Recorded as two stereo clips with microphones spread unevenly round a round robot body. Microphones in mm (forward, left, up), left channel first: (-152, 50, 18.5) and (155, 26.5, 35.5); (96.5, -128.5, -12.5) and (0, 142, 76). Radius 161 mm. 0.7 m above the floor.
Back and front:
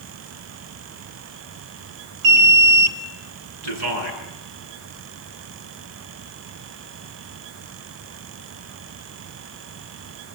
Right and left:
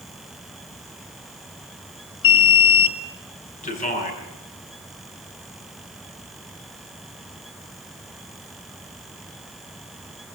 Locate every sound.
2.2 s an alarm: 40° right, 1.5 m
3.6 s a man speaking: 5° right, 9 m